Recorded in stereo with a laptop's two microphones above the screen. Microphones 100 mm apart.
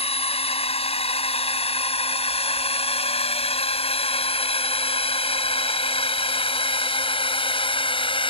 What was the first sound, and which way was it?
A drone, 85° left.